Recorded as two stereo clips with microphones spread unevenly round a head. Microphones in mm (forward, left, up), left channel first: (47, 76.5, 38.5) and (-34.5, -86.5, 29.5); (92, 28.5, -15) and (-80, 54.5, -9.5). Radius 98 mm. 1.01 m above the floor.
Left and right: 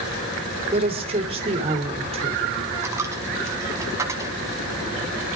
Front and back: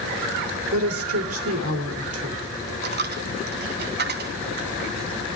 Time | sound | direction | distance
0.7 | a woman speaking | straight behind | 2.5 m
2.8 | a dropped coin | 165° left | 1.4 m